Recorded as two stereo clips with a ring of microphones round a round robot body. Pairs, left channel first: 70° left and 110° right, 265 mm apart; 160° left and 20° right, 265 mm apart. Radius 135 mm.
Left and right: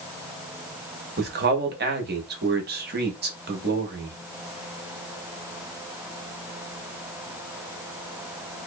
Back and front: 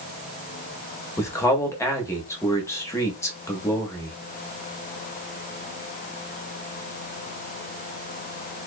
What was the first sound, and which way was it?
A man speaking, 130° right.